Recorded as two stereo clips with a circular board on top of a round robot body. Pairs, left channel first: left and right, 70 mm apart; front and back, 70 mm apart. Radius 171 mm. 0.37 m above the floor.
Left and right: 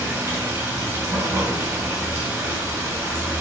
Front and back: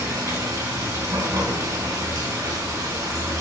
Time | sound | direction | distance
0.0 | running water | 150° right | 3 m